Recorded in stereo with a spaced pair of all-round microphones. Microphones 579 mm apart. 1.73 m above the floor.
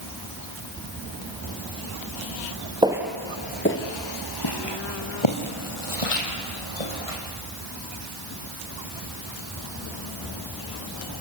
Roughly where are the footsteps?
Centre.